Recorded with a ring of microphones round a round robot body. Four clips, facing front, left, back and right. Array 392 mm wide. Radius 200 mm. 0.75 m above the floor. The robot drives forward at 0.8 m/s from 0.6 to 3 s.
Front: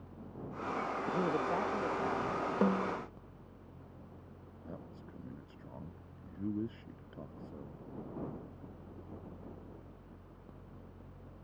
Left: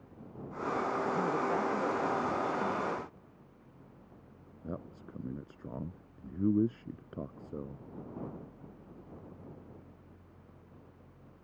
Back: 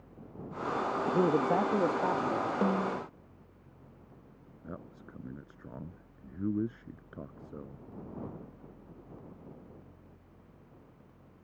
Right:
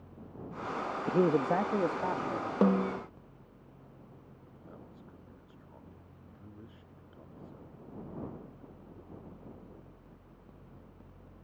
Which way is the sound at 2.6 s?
85° right.